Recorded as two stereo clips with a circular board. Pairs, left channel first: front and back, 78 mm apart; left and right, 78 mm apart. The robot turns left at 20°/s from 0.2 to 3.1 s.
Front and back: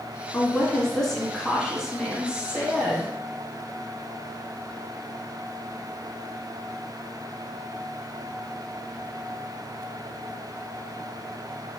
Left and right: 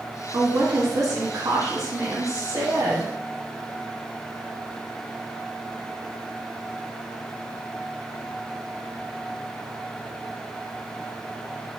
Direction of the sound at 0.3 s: 65° right.